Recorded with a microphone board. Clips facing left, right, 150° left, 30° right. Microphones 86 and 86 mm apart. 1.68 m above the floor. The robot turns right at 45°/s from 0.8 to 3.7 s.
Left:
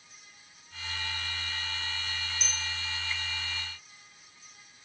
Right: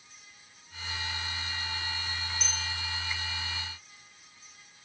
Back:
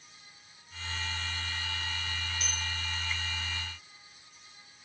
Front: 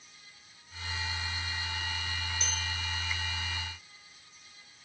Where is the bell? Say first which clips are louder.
Right 1 dB, front 1 dB; 10° right, 1.1 m; by 2.6 s 5° left, 1.1 m.